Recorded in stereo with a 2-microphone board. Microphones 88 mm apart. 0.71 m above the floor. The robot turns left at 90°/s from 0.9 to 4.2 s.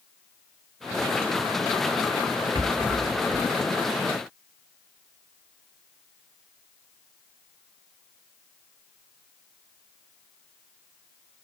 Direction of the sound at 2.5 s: 55° right (ahead or behind).